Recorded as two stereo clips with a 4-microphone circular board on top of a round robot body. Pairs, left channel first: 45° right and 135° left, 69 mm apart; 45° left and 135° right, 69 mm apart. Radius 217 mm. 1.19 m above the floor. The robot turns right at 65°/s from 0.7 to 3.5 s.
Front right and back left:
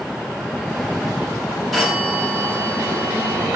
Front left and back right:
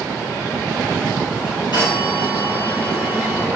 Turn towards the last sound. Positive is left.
turn(degrees=160)